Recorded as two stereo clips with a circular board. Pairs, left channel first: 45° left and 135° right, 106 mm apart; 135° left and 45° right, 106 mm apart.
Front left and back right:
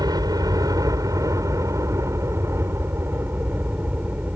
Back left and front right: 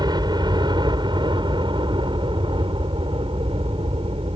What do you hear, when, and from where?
0.0 s a helicopter: 90° right; by 4.4 s 60° right